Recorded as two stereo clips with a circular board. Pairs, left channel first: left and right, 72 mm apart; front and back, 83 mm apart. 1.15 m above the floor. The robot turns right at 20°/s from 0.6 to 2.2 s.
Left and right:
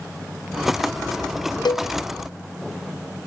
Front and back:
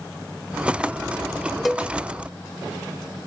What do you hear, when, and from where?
1.6 s a cowbell: 90° left, 0.6 m; by 1.9 s 95° left, 0.6 m